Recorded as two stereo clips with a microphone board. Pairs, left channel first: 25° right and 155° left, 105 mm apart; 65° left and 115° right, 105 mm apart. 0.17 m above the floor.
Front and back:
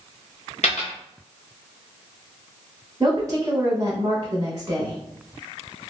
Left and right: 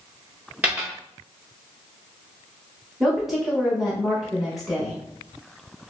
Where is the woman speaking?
160° left, 1.3 m.